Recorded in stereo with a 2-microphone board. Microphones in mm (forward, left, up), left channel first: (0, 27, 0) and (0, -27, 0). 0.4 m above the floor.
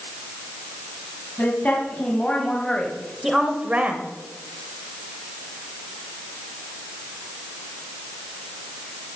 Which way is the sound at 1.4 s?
30° left (ahead or behind).